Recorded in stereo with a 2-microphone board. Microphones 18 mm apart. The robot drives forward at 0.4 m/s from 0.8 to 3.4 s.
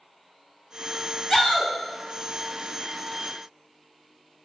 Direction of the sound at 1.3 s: 20° left (ahead or behind).